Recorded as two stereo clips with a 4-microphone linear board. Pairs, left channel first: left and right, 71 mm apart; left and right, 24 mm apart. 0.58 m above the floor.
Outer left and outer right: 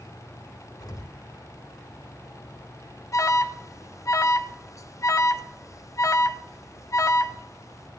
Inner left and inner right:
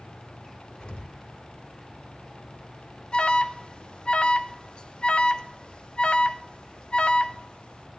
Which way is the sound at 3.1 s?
45° left (ahead or behind).